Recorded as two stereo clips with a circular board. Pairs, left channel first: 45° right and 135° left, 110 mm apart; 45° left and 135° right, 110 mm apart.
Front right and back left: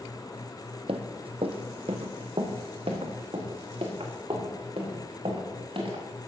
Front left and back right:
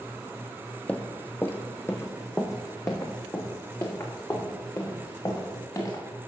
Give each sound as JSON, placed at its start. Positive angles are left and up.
{"t": 0.9, "sound": "running footsteps", "azimuth_deg": 120, "distance_m": 0.9}